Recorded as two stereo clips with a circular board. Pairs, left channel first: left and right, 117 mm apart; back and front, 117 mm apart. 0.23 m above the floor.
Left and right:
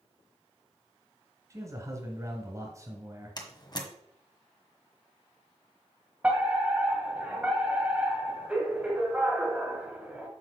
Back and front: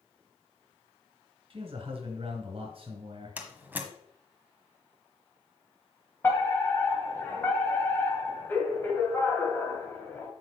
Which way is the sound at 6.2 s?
150° right.